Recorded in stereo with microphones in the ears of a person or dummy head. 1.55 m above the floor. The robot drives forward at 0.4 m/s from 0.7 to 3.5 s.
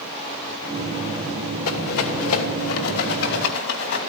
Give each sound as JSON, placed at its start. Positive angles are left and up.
{"t": 1.6, "sound": "a rattle", "side_deg": 80, "distance_m": 2.5}